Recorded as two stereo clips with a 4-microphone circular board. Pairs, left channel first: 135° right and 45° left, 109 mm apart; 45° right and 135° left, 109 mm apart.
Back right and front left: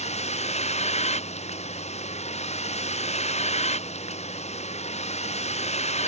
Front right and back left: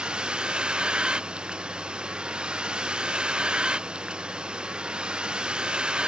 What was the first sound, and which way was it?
A vehicle, 145° right.